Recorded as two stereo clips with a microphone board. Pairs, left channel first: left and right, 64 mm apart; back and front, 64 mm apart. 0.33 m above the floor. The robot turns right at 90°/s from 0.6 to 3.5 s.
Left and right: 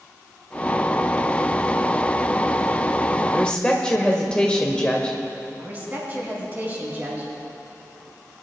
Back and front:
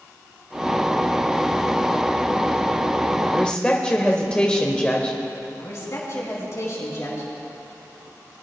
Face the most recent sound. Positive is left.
turn(degrees=-150)